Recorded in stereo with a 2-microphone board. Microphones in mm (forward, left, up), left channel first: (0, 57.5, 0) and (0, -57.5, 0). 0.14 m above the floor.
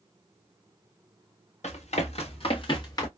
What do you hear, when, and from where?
1.6 s running footsteps: 80° left, 2.5 m; by 3.1 s 30° left (ahead or behind), 2 m